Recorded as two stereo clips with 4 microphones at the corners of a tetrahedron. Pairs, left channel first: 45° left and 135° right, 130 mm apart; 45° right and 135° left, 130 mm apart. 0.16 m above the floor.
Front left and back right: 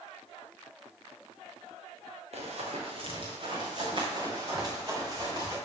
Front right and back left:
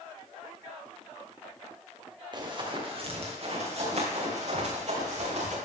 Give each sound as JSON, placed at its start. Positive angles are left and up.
{"t": 2.3, "sound": "running footsteps", "azimuth_deg": -170, "distance_m": 3.0}